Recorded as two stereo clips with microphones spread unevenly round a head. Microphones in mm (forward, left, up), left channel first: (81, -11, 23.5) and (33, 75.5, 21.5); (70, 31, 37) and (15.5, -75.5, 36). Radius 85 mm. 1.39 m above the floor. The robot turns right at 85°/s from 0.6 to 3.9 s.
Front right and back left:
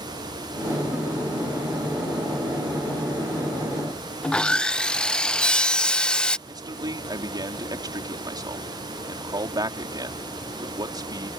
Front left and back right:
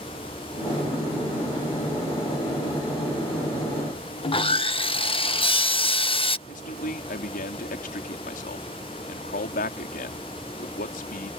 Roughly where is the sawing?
Ahead.